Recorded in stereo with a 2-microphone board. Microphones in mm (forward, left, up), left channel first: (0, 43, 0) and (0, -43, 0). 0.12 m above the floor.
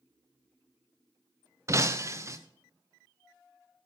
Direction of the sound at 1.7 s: 35° right (ahead or behind).